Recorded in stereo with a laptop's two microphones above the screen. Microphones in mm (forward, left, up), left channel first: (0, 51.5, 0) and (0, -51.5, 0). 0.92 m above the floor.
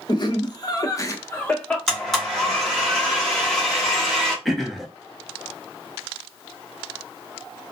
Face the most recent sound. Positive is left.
turn(degrees=0)  # may be behind; listen again after turning